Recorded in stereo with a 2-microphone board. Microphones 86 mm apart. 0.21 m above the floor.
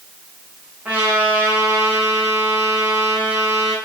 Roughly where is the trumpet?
Right.